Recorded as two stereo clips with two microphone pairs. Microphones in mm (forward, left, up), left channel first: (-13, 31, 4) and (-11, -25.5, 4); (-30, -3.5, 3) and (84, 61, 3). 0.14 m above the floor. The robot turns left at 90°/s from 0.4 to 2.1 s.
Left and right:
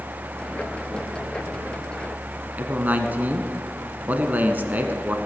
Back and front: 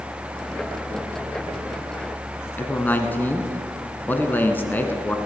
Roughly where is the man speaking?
Right.